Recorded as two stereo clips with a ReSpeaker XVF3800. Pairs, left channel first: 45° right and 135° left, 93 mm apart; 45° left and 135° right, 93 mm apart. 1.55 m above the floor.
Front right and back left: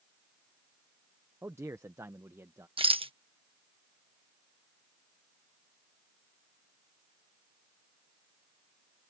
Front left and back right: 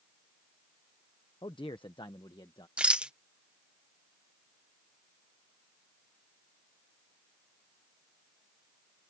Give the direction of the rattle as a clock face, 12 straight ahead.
7 o'clock.